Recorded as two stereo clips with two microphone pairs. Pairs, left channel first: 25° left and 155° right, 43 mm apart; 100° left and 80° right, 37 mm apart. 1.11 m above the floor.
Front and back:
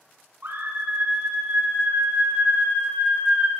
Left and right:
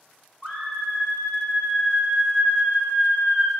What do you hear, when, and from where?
0.4 s a scream: 170° left, 5 m